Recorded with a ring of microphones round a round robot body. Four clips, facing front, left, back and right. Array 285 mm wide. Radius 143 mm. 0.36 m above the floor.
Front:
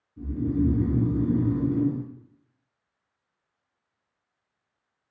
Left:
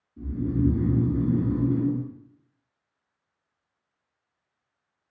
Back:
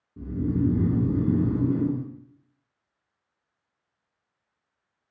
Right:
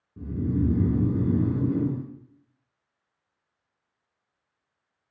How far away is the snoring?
About 2.5 m.